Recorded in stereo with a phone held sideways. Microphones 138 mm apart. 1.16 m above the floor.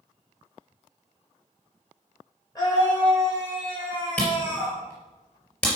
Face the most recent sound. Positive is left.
turn(degrees=15)  # may be behind; listen again after turning